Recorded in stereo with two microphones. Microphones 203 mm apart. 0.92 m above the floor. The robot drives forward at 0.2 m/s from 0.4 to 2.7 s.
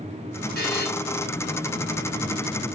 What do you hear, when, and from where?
0.6 s a buzzer: 55° left (ahead or behind), 2.5 m